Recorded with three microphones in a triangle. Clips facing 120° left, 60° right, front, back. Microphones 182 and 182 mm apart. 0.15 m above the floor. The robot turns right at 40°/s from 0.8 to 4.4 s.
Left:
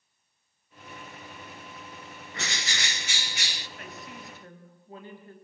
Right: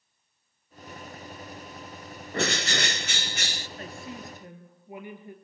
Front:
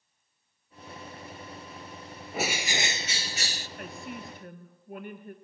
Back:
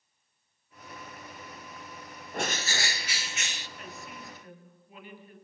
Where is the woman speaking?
15° right, 3 m; by 5.3 s 10° left, 3 m.